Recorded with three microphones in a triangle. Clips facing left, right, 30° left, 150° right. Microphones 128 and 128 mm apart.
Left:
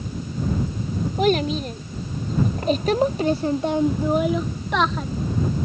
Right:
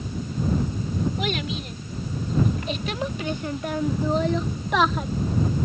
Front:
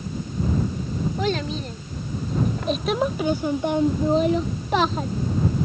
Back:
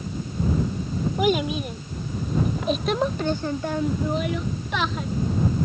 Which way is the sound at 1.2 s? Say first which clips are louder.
Left 8 dB, back 6 dB; 135° left.